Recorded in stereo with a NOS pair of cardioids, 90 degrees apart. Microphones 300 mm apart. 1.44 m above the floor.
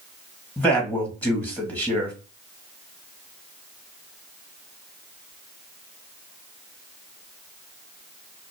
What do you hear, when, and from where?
0.6 s a man speaking: 5° left, 1.5 m